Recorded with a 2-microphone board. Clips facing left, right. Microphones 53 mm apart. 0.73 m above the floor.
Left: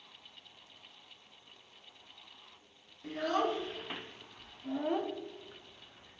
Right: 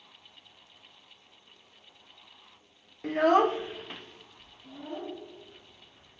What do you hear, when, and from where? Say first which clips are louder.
3.0 s a child speaking: right 10 dB; 60° right (ahead or behind), 0.8 m; by 6.2 s 75° left (ahead or behind), 2 m